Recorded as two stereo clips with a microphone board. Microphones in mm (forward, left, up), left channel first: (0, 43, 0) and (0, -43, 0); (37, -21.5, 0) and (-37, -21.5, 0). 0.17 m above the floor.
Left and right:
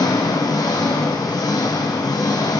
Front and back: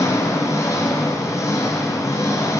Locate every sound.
0.0 s an engine running: 50° left, 3 m